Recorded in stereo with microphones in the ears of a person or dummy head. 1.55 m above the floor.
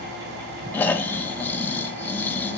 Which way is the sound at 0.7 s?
5° left (ahead or behind).